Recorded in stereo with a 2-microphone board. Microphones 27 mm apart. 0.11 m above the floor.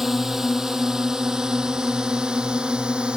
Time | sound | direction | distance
0.0 | a drone | 10° right (ahead or behind) | ?